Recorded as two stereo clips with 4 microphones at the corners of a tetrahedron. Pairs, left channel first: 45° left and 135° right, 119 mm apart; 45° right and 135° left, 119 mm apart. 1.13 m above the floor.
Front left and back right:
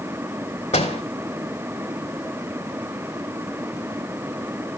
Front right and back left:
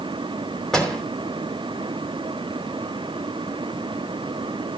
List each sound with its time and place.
0.7 s a door slam: 40° left, 3 m